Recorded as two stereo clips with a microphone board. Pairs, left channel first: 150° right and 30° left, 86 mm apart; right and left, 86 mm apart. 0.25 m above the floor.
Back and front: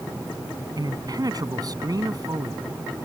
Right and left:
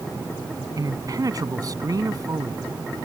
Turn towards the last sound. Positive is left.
turn(degrees=60)